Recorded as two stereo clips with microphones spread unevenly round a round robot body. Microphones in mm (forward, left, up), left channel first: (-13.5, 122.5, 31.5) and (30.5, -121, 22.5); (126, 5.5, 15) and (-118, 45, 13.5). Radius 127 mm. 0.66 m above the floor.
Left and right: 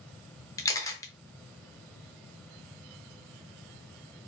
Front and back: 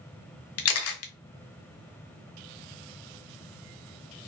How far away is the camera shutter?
About 0.6 m.